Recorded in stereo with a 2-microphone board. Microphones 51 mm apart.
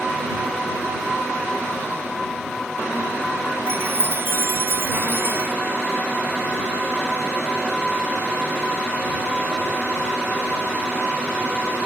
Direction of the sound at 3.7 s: 45° right (ahead or behind).